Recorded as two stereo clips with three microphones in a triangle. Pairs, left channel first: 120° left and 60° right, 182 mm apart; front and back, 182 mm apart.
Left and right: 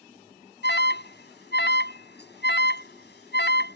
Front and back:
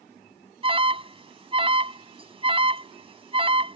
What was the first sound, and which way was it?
An alarm, 125° left.